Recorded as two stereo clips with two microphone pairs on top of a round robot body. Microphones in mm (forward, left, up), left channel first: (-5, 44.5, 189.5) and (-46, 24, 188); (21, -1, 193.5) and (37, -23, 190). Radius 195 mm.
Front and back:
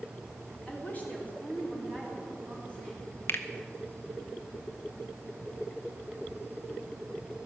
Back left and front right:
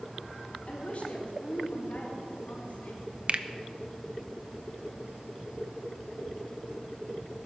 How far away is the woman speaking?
About 3.5 m.